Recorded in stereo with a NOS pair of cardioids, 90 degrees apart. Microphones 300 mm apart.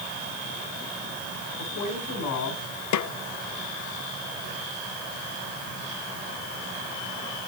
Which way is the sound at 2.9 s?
70° left.